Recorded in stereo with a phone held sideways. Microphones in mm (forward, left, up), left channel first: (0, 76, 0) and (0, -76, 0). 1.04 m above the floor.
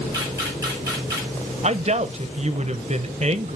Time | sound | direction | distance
0.1 | a camera shutter | 20° right (ahead or behind) | 4 m
1.6 | a woman speaking | 45° right (ahead or behind) | 0.6 m